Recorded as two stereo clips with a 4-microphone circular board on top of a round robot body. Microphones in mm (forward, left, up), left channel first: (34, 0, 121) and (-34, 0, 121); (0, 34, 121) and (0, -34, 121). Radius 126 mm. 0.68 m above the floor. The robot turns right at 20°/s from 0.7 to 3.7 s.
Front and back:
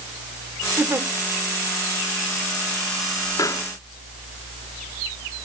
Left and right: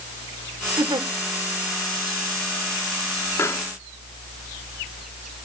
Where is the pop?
40° left, 1.4 m; by 3.7 s 45° left, 1.4 m.